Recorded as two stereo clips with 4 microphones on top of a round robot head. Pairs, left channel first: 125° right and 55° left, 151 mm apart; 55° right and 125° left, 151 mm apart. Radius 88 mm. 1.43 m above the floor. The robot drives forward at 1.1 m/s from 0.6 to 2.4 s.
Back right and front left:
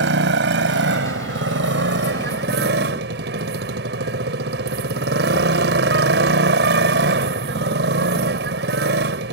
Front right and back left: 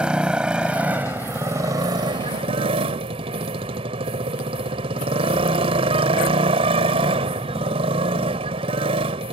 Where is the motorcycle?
45° left; by 9.3 s 70° left.